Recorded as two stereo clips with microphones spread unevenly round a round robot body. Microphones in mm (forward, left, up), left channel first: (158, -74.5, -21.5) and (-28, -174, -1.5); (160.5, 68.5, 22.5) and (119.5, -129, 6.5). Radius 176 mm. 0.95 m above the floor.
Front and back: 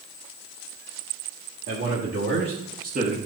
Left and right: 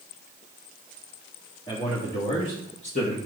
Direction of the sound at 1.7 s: 155° left.